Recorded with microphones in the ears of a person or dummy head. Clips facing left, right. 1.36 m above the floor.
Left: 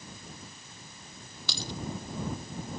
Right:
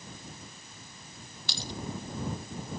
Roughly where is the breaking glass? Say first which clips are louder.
Left 2 dB; left.